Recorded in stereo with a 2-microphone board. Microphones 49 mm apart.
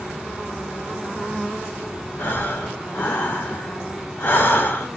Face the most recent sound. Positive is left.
turn(degrees=45)  # may be behind; listen again after turning